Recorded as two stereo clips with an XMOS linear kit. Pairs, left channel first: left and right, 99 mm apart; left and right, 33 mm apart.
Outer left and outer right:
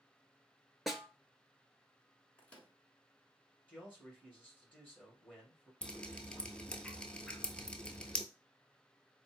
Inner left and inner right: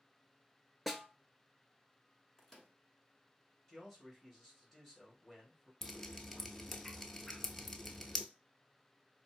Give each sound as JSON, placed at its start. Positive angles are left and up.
{"t": 0.9, "sound": "a snare drum", "side_deg": 0, "distance_m": 0.6}
{"t": 2.4, "sound": "a microwave", "side_deg": 15, "distance_m": 0.9}
{"t": 3.7, "sound": "a man speaking", "side_deg": 15, "distance_m": 2.0}
{"t": 5.8, "sound": "dripping", "side_deg": 10, "distance_m": 0.5}